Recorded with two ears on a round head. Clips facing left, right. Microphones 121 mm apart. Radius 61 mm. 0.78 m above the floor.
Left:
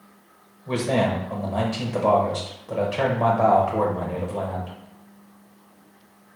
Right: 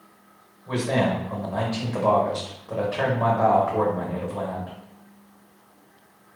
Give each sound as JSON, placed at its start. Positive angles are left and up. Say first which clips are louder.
{"t": 0.7, "sound": "a man speaking", "louder": "left 1 dB", "side_deg": 15, "distance_m": 0.7}